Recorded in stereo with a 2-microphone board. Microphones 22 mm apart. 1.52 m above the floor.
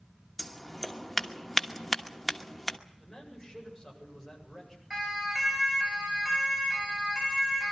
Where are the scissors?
15° left (ahead or behind), 1.2 m.